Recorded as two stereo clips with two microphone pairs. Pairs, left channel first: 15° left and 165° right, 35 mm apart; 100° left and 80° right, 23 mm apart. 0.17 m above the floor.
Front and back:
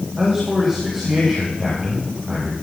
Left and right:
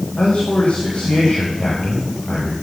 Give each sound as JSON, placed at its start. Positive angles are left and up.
{"t": 0.2, "sound": "a man speaking", "azimuth_deg": 110, "distance_m": 6.5}